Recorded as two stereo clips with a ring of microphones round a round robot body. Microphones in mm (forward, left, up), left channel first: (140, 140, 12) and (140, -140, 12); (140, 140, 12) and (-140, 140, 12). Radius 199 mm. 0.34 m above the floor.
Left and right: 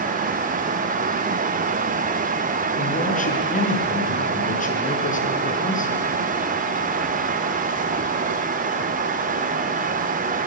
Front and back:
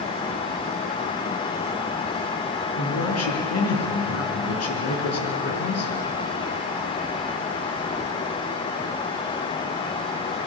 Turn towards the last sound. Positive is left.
turn(degrees=30)